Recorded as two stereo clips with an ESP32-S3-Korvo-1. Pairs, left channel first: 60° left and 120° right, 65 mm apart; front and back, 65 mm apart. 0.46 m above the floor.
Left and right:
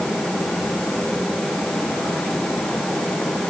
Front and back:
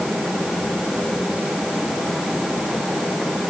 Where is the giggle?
No giggle in this recording.